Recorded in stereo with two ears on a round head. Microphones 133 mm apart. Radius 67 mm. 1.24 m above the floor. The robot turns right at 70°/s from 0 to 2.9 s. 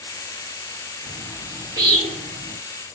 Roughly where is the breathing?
No breathing in this recording.